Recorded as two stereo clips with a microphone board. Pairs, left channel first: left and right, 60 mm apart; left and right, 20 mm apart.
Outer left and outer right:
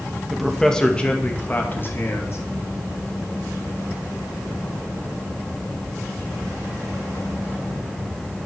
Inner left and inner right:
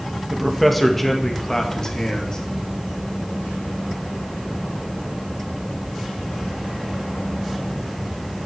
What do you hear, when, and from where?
0.3 s a man speaking: 5° right (ahead or behind), 2.0 m; by 2.4 s 45° left (ahead or behind), 2.5 m